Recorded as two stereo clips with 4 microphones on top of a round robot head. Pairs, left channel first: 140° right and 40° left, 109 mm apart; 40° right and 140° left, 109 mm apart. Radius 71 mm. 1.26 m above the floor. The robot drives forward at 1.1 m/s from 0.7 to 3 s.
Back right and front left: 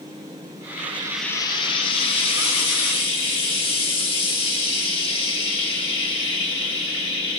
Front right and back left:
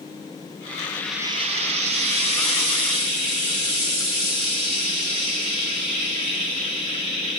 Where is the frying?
10° left, 0.5 m; by 7.4 s straight behind, 2 m.